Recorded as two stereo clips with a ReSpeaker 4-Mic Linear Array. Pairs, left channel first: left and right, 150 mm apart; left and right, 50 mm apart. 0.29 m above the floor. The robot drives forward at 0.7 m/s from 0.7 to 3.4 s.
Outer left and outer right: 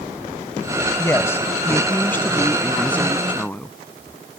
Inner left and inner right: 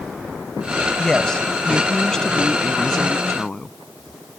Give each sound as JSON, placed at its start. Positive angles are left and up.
{"t": 1.0, "sound": "a woman speaking", "side_deg": 20}